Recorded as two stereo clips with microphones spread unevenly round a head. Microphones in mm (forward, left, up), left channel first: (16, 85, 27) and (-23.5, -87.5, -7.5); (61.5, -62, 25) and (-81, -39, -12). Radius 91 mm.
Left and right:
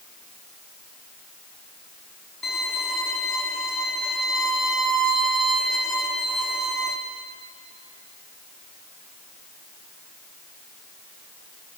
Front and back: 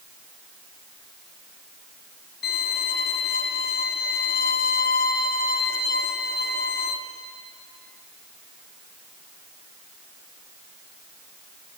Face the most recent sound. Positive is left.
turn(degrees=-10)